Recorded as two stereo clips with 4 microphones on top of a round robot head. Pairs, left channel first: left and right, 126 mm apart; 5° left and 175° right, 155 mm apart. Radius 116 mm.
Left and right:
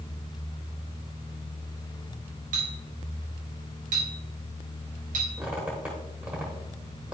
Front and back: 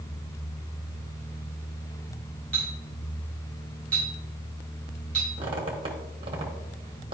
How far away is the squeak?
About 0.9 m.